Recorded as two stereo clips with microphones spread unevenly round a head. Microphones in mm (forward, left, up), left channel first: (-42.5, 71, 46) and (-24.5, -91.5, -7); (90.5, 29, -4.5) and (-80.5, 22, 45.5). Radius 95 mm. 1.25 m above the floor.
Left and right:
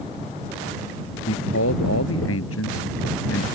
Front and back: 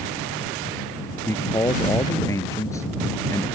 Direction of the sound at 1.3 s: 75° left.